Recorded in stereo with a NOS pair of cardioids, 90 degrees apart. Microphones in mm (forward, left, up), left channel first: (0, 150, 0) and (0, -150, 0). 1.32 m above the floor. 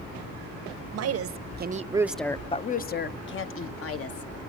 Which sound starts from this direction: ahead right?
A woman speaking, at 0.9 s.